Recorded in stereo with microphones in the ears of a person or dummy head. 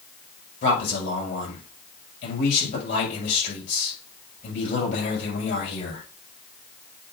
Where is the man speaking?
55° left (ahead or behind), 6.5 m.